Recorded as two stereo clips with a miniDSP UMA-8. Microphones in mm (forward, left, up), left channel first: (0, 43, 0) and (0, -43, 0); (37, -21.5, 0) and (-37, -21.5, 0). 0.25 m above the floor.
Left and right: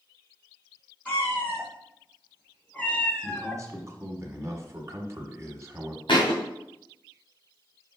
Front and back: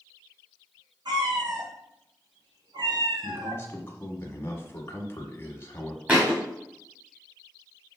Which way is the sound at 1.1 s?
160° left.